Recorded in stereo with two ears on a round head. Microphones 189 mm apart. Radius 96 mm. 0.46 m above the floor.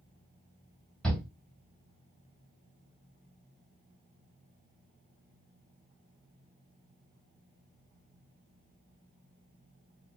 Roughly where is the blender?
I don't hear a blender.